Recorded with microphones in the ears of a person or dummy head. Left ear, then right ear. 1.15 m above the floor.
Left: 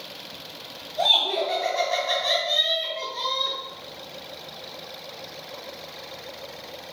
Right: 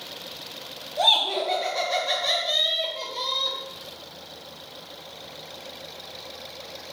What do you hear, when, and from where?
1.0 s laughter: 30° right (ahead or behind), 0.9 m